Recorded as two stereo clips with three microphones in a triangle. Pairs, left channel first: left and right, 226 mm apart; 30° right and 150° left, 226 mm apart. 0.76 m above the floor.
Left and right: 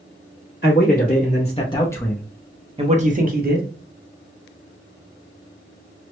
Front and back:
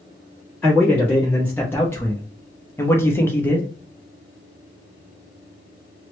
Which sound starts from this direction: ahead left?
A man speaking, at 0.6 s.